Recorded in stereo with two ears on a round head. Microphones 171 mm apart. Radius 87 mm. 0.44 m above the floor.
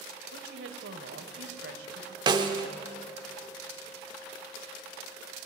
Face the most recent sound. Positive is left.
turn(degrees=-25)  # may be behind; listen again after turning